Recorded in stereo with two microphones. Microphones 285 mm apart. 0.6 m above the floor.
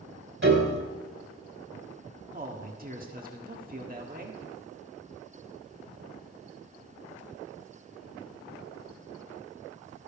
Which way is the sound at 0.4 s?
50° right (ahead or behind).